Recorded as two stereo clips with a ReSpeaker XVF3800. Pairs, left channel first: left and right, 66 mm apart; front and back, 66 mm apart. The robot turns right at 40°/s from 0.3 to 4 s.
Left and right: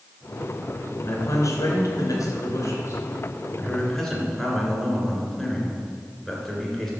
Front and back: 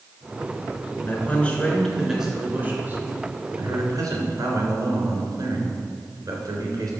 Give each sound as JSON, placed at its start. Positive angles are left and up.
{"t": 1.0, "sound": "a man speaking", "azimuth_deg": 55, "distance_m": 3.5}